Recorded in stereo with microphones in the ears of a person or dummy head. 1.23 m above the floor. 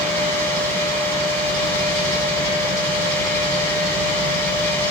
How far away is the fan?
About 4.5 m.